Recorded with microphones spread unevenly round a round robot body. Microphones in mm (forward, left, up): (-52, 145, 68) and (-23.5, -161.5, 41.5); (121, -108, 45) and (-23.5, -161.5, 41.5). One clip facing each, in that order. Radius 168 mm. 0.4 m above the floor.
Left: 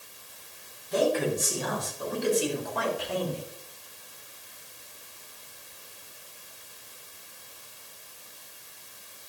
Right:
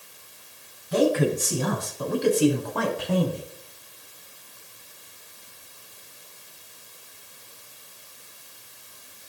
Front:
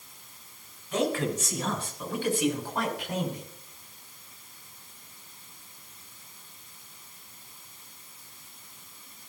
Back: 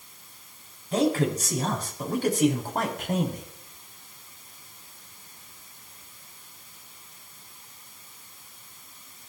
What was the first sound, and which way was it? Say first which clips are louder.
A man speaking: right 4 dB, back 4 dB; 105° right.